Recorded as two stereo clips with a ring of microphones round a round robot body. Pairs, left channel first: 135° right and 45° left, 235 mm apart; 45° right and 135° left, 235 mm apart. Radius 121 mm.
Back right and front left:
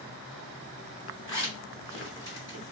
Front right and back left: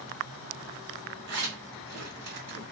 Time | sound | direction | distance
1.3 | a zipper | 150° left | 1.5 m